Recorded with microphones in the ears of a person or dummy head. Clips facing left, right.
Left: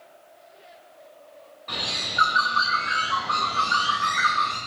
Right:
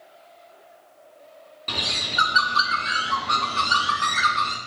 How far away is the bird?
About 1.5 m.